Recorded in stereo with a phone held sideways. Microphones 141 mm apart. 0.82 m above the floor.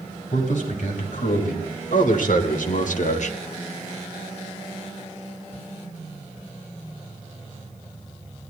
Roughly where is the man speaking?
Left.